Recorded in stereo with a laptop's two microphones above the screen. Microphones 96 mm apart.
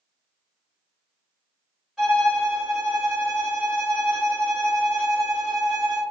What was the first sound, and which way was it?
A violin, centre (ahead or behind).